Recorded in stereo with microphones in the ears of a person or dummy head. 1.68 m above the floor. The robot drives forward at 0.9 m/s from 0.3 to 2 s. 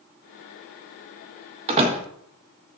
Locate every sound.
1.7 s a door slam: 30° right (ahead or behind), 1.4 m; by 2.0 s 35° right (ahead or behind), 1.2 m